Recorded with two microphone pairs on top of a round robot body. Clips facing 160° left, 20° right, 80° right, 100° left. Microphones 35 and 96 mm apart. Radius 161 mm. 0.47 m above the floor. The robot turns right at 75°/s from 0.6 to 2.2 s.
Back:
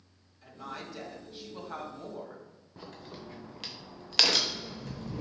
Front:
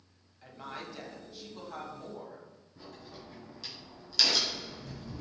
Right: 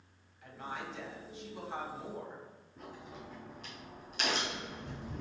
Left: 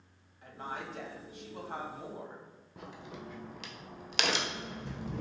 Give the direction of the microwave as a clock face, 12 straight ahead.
I don't hear a microwave.